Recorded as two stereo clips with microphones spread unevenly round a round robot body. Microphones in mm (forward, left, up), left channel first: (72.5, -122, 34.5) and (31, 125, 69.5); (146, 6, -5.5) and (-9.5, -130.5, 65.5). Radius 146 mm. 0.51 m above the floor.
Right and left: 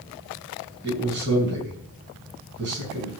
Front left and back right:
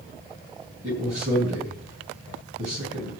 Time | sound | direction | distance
0.8 | a man speaking | 150° left | 5.5 m